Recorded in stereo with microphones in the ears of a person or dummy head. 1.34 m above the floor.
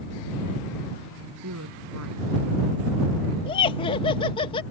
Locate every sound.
1.4 s a woman speaking: 85° right; by 3.4 s 80° right
3.5 s laughter: 30° left (ahead or behind)